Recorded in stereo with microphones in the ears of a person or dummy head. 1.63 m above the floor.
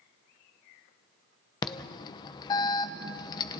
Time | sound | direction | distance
1.6 | an alarm | 20° left (ahead or behind) | 0.7 m